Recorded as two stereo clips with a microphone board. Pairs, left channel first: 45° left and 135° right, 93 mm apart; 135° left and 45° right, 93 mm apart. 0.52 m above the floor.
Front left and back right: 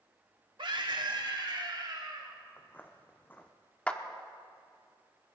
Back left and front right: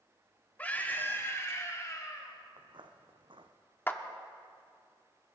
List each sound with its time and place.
0.6 s a scream: 155° right, 1.8 m; by 2.4 s 175° right, 3 m
2.6 s footsteps: 20° right, 1.3 m
3.9 s a clap: 105° left, 1.0 m